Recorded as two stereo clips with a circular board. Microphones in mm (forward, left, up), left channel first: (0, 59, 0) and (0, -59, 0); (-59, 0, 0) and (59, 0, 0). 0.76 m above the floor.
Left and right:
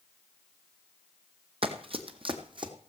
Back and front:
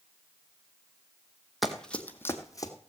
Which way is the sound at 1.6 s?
90° right.